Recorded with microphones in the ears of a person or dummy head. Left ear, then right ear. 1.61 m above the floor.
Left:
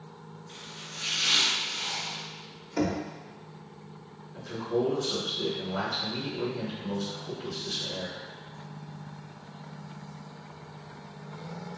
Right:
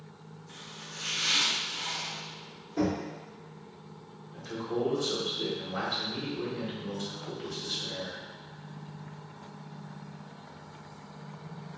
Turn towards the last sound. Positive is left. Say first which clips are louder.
# left 3 dB
turn(degrees=-85)